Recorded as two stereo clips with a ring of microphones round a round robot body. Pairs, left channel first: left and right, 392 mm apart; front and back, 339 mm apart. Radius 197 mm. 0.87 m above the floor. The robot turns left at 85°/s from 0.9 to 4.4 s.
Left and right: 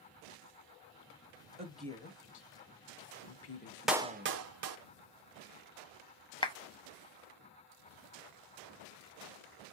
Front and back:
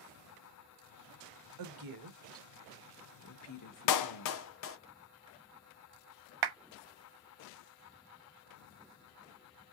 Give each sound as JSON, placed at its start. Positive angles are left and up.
{"t": 1.6, "sound": "a woman speaking", "azimuth_deg": -160, "distance_m": 1.2}
{"t": 3.9, "sound": "a clap", "azimuth_deg": 0, "distance_m": 0.7}
{"t": 6.4, "sound": "a clap", "azimuth_deg": 170, "distance_m": 0.9}